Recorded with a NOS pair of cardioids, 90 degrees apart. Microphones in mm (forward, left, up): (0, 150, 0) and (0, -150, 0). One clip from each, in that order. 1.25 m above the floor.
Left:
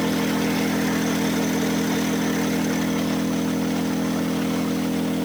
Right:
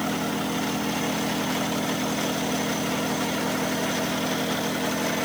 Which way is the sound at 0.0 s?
50° left.